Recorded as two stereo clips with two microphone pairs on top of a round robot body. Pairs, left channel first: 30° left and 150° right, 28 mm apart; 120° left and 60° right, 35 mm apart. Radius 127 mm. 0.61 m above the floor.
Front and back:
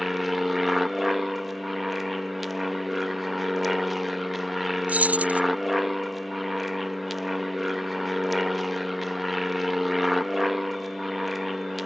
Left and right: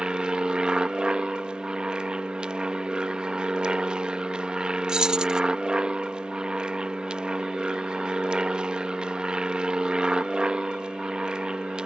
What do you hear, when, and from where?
0.0 s an aircraft: 100° right
4.9 s keys jangling: 135° right